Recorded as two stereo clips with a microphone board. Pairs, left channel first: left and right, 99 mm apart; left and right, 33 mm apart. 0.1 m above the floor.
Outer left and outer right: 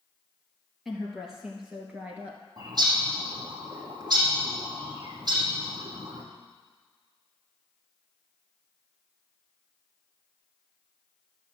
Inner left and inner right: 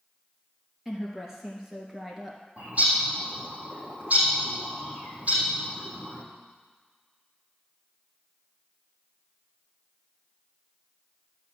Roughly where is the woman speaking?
Centre.